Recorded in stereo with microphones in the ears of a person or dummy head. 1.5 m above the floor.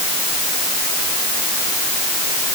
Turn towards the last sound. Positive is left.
No sound to turn to.